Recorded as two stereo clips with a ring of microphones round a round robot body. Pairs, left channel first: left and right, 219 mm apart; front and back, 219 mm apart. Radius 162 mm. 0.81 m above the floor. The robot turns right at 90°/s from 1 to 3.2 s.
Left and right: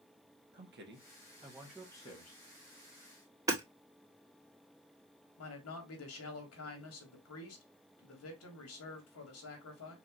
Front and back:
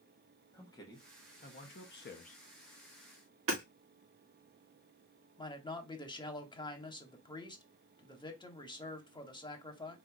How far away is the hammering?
About 2 m.